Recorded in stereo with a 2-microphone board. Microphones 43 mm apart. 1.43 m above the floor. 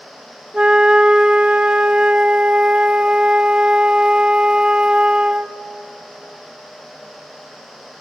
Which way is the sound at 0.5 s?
25° right (ahead or behind).